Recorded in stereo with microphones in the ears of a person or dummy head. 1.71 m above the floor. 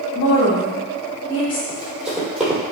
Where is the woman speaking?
30° left (ahead or behind), 3 m.